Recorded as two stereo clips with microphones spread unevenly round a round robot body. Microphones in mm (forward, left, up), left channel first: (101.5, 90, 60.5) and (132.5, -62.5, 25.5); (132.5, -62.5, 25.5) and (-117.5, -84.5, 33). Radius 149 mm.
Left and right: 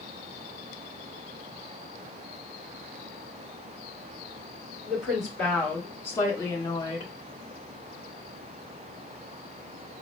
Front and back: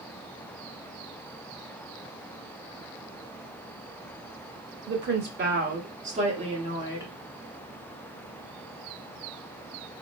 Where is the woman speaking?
150° right, 1.6 m; by 7.1 s 120° left, 1.2 m.